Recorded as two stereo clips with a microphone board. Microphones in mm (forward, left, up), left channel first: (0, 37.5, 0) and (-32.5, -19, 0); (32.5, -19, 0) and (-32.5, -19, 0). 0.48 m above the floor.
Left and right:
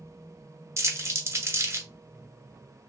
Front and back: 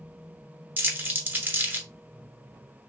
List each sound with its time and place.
0.8 s crumpling: 135° right, 1.0 m